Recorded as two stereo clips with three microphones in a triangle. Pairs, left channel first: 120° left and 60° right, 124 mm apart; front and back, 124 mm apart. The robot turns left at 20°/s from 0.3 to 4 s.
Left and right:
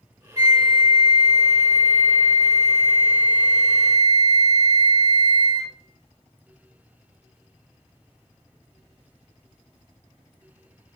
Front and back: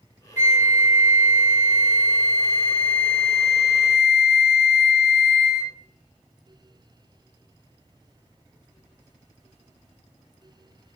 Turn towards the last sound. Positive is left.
turn(degrees=-70)